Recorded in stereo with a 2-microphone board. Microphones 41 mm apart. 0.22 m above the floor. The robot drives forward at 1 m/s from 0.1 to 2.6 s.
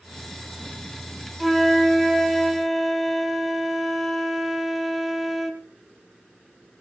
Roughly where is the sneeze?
I don't hear a sneeze.